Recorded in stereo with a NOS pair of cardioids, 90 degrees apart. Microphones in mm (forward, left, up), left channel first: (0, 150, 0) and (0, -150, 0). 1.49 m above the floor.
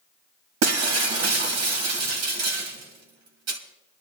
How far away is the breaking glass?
About 2.0 m.